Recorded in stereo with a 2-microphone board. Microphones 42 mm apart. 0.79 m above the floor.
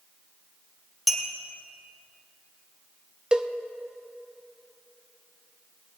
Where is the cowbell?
20° right (ahead or behind), 0.5 m.